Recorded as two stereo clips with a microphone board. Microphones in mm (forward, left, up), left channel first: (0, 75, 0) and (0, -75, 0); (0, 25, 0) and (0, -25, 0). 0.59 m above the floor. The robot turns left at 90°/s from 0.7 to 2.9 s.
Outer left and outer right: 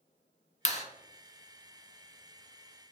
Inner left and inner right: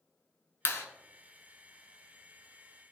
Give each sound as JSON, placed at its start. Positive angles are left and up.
{"t": 0.7, "sound": "a clap", "side_deg": 50, "distance_m": 0.7}